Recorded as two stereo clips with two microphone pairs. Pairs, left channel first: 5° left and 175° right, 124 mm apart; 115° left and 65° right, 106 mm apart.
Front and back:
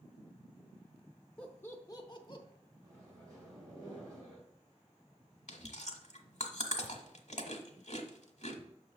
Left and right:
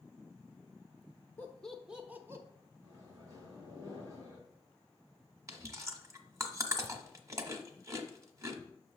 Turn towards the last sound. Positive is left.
turn(degrees=-10)